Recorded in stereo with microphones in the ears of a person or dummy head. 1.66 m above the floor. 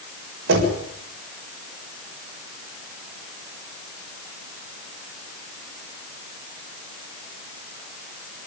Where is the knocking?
60° right (ahead or behind), 7 m.